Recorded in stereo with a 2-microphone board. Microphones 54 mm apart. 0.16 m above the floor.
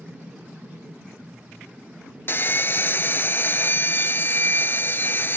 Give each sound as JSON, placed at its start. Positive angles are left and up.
{"t": 2.3, "sound": "sawing", "side_deg": 40}